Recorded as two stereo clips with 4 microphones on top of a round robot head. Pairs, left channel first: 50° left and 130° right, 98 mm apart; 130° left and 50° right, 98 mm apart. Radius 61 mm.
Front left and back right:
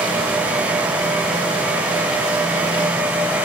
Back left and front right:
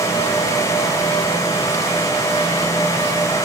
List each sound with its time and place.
Only background noise.